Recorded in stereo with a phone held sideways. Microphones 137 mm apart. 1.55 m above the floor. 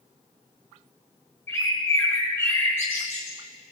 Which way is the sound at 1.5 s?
20° left (ahead or behind).